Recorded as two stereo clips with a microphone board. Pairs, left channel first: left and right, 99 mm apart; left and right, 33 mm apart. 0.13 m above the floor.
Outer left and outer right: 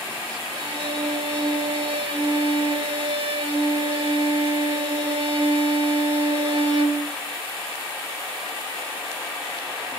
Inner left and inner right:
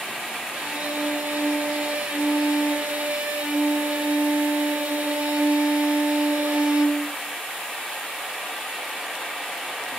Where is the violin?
55° right (ahead or behind), 4 m.